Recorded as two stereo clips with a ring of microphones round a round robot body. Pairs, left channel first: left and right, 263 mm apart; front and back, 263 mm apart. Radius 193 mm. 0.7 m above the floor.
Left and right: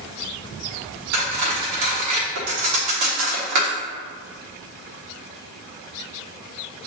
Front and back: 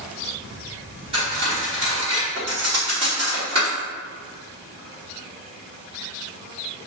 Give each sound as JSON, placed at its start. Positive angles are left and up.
{"t": 1.1, "sound": "cutlery clinking", "azimuth_deg": -105, "distance_m": 1.1}